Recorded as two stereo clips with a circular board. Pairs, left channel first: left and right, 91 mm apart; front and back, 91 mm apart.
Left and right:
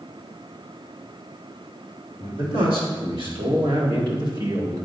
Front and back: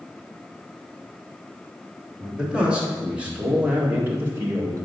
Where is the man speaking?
100° right, 3 m; by 4.8 s 130° right, 1.5 m.